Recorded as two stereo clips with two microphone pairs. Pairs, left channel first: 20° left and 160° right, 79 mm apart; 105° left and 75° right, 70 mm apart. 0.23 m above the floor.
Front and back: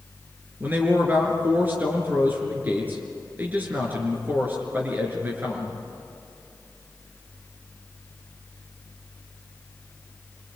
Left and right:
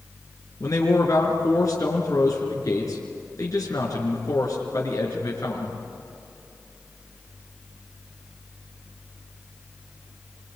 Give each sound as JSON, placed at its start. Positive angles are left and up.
{"t": 0.6, "sound": "a man speaking", "azimuth_deg": 135, "distance_m": 4.0}